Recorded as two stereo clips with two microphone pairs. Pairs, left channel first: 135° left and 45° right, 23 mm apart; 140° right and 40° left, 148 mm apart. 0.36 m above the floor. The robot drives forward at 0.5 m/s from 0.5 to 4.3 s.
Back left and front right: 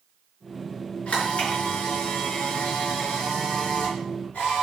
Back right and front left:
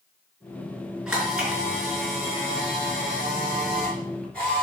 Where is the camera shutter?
120° left, 5 m; by 4.6 s 135° left, 6 m.